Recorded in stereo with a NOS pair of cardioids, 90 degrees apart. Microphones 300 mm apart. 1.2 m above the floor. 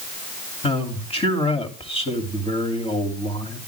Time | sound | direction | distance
0.6 | a man speaking | 20° left | 3 m